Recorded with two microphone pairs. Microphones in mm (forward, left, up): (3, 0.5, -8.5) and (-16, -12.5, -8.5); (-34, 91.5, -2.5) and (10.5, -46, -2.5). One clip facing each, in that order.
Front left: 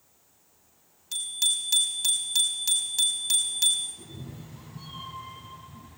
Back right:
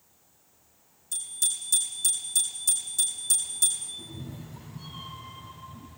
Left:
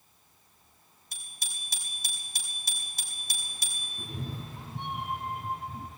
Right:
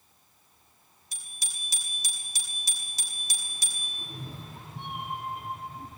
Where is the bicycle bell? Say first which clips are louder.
Front left 6 dB, left 1 dB; 75° left, 4.5 m.